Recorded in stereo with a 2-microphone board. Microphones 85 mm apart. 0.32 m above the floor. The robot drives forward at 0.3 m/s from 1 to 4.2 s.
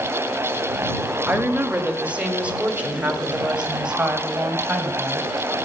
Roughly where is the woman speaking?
Centre.